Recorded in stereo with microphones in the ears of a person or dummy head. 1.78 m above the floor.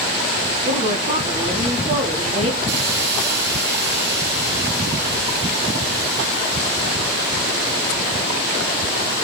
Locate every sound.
0.7 s a woman speaking: 45° right (ahead or behind), 3.5 m
2.7 s a hiss: 70° right (ahead or behind), 8.5 m